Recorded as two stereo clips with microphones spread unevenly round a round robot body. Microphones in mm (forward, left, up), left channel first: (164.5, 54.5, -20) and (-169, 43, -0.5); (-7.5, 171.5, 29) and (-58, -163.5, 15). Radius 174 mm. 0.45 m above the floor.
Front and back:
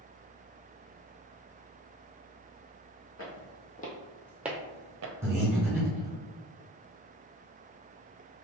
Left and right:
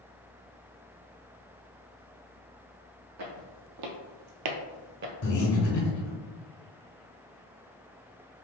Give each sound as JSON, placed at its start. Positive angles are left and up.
{"t": 3.2, "sound": "footsteps", "azimuth_deg": -50, "distance_m": 1.1}
{"t": 5.2, "sound": "breathing", "azimuth_deg": 100, "distance_m": 1.7}